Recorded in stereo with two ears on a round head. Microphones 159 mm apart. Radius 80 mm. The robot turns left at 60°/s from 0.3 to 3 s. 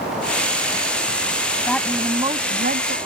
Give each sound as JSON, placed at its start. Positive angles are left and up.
{"t": 1.7, "sound": "a woman speaking", "azimuth_deg": 10}